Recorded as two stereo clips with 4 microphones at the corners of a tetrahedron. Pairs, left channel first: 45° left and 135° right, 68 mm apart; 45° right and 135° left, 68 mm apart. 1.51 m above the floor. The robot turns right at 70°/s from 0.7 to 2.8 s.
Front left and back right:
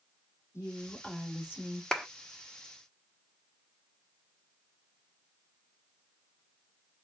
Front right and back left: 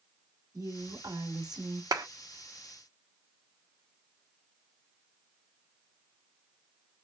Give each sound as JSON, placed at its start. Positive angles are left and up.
{"t": 0.5, "sound": "a woman speaking", "azimuth_deg": 100, "distance_m": 2.0}
{"t": 1.9, "sound": "a clap", "azimuth_deg": 125, "distance_m": 0.9}